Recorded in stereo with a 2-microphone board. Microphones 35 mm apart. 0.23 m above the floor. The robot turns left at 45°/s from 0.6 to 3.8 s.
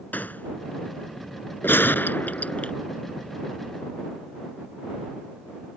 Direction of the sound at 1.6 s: 85° left.